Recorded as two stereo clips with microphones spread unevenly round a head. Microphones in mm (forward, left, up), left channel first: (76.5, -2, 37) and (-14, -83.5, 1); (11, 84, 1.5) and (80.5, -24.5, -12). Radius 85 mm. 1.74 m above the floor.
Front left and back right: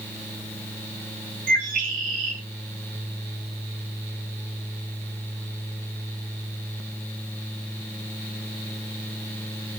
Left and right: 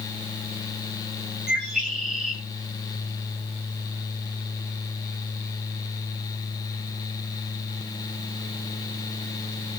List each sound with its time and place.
1.5 s a bird: 145° right, 5 m